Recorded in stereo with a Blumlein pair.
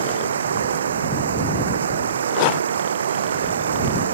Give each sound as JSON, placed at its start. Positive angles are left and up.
{"t": 0.0, "sound": "running water", "azimuth_deg": -70}